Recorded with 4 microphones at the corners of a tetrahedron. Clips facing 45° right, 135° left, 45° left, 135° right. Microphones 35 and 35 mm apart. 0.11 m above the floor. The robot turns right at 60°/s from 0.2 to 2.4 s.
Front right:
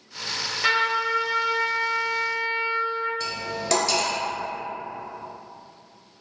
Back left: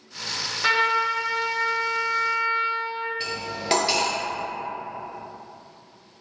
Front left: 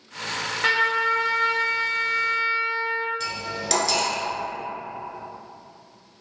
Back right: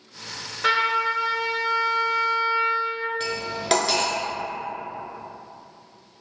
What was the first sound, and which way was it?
A trumpet, 15° left.